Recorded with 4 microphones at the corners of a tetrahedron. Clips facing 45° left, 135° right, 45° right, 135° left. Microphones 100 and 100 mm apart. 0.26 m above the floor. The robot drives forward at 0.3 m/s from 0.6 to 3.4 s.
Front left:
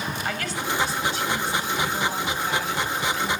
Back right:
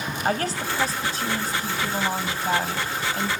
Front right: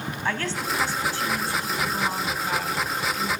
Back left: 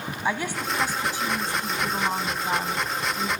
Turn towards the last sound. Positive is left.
turn(degrees=-165)